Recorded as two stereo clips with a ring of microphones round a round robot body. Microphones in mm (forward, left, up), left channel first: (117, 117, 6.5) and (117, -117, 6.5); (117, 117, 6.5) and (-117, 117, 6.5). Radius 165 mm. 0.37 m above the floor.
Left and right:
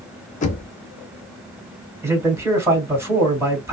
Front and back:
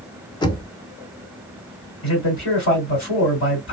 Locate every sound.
0.4 s knocking: 60° left, 0.6 m
2.0 s a man speaking: 15° right, 1.9 m